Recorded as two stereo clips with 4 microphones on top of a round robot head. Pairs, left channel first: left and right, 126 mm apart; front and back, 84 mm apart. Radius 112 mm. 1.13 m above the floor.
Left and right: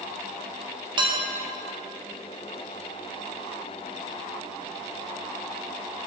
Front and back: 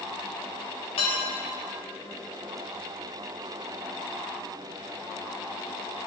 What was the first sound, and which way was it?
Dishes clattering, 40° right.